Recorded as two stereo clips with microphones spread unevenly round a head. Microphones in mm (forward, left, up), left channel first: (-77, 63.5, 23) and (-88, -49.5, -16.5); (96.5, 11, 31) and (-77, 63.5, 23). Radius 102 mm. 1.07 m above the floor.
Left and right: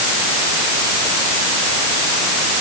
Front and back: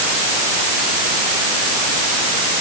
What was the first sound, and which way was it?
Only background noise.